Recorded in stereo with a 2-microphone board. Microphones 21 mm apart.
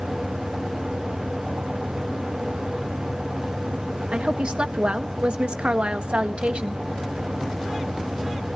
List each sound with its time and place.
4.1 s a woman speaking: 75° right (ahead or behind), 1.7 m